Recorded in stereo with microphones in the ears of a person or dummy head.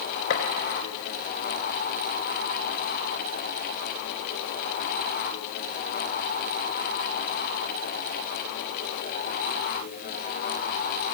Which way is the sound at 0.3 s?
70° left (ahead or behind).